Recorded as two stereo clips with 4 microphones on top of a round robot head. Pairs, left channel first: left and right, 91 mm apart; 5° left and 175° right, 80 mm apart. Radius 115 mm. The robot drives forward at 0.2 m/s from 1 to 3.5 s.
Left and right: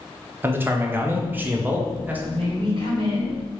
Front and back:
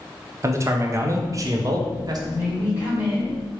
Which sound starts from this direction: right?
A woman speaking, at 2.3 s.